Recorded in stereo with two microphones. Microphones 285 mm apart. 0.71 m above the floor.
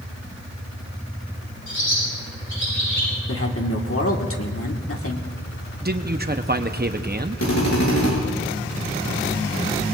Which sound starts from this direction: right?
A man speaking, at 5.8 s.